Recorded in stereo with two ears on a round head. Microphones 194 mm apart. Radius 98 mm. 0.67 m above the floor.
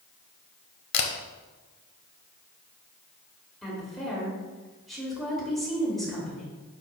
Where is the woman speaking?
Centre (ahead or behind), 2 m.